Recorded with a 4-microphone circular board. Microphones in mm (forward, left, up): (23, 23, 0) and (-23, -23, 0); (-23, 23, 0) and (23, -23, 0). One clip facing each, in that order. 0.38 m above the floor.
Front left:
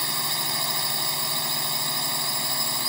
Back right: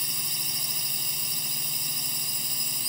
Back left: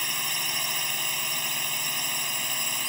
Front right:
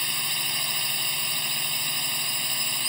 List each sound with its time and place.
0.0 s a drone: 55° left